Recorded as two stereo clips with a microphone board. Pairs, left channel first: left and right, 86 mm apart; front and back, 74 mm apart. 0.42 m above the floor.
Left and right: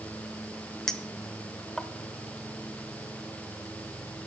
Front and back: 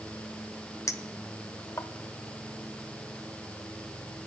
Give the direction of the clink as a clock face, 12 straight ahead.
12 o'clock.